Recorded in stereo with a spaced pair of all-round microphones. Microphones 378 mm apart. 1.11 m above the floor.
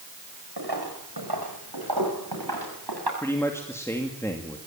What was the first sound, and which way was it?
Footsteps, 80° right.